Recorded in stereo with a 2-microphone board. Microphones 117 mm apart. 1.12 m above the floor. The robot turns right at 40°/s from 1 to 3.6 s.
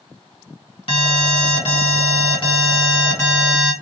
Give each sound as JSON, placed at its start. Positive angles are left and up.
{"t": 0.9, "sound": "an alarm", "azimuth_deg": 65, "distance_m": 1.8}